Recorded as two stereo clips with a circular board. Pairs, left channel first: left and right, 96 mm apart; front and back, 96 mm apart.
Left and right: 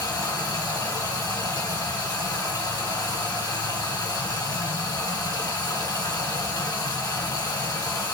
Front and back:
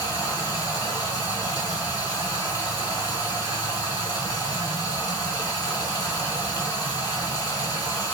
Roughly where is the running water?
Ahead left.